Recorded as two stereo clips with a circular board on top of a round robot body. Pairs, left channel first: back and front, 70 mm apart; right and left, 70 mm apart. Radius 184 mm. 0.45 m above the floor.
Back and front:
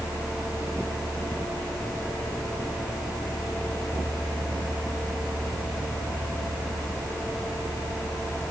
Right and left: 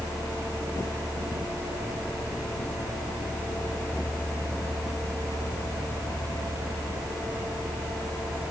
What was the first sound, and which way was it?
Only background noise.